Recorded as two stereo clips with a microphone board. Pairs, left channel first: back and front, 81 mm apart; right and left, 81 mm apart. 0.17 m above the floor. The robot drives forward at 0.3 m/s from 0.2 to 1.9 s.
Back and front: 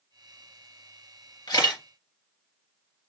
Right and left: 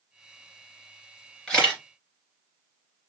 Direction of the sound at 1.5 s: 170° right.